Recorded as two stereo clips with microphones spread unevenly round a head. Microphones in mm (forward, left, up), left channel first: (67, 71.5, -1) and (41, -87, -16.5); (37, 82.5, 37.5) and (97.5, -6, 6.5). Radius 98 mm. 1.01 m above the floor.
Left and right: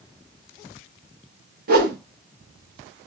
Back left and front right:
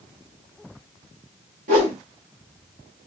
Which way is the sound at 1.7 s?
70° right.